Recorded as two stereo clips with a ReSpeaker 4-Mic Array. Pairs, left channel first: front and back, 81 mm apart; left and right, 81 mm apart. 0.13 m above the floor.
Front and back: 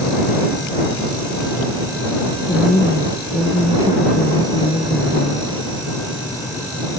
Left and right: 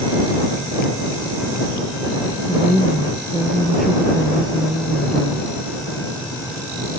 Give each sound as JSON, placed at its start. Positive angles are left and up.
{"t": 2.5, "sound": "a woman speaking", "azimuth_deg": 0}